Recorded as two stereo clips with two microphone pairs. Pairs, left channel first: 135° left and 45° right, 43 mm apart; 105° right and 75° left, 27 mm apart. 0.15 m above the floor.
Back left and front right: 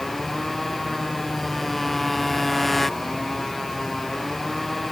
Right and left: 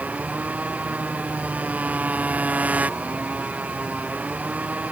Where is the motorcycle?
50° left.